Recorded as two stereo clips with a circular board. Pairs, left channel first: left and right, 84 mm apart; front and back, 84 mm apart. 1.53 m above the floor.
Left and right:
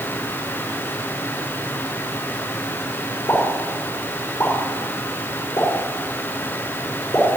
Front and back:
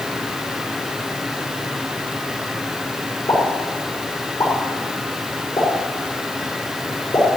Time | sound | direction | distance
3.3 | a pop | 50° left | 4.5 m